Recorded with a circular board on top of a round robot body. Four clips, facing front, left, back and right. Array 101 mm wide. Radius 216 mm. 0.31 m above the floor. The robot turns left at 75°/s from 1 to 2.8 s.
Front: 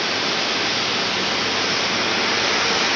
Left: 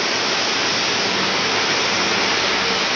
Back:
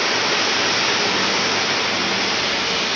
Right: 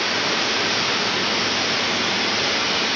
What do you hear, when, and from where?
0.0 s running water: 165° left, 1.8 m; by 3.0 s 30° left, 1.8 m